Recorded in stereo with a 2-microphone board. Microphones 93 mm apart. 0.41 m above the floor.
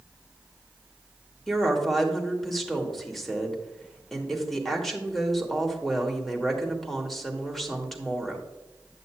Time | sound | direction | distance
1.5 | a woman speaking | centre (ahead or behind) | 1.3 m